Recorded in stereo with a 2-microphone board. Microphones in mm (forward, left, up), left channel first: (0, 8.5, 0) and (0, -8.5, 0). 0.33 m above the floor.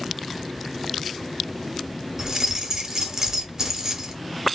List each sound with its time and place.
2.2 s keys jangling: 30° right (ahead or behind), 0.7 m